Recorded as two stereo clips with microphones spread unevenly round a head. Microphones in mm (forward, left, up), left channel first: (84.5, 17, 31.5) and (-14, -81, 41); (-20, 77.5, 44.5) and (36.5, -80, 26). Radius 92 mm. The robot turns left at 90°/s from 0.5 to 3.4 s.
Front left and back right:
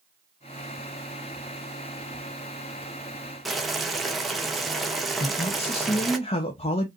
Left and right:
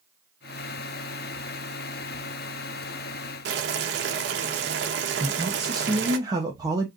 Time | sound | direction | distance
3.5 | boiling | 50° right | 0.9 m
5.2 | a man speaking | straight ahead | 0.8 m